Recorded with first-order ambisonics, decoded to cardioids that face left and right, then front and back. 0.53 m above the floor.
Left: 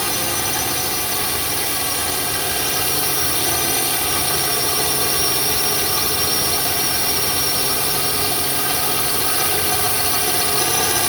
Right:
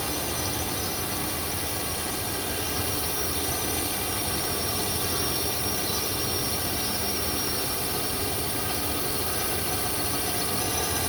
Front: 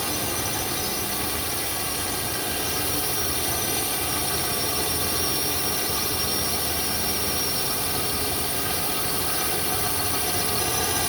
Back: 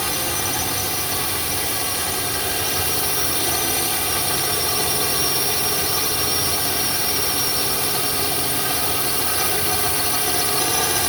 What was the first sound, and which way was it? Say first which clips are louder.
A drone: left 8 dB, back 4 dB; 120° left.